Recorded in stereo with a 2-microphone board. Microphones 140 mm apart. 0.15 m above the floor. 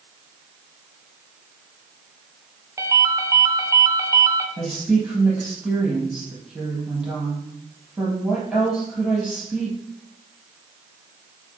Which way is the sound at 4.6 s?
5° right (ahead or behind).